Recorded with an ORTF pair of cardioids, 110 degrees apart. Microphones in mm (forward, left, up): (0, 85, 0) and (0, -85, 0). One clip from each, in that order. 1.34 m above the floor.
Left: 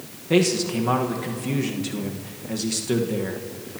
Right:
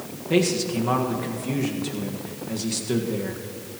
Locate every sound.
0.3 s a man speaking: 15° left, 1.6 m